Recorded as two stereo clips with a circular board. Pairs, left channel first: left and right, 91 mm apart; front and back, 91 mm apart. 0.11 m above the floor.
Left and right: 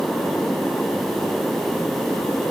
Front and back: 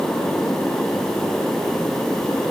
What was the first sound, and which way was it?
Only background noise.